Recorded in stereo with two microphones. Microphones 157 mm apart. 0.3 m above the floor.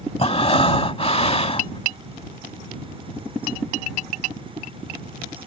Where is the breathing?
40° left (ahead or behind).